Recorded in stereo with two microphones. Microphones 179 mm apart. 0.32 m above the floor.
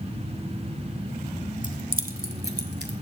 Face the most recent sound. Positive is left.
turn(degrees=-65)  # may be behind; listen again after turning